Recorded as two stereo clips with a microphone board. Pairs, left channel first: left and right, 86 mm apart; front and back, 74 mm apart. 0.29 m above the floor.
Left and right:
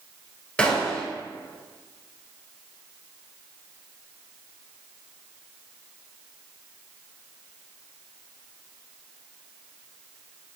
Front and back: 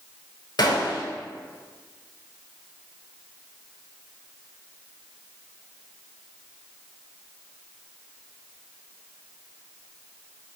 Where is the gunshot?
15° left, 0.7 m.